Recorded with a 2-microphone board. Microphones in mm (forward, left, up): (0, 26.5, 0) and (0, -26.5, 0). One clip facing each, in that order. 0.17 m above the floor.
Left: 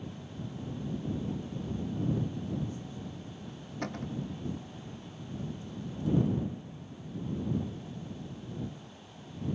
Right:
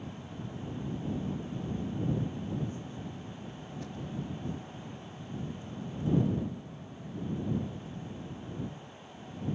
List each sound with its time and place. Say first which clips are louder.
3.8 s a cupboard door: left 4 dB; 60° left (ahead or behind)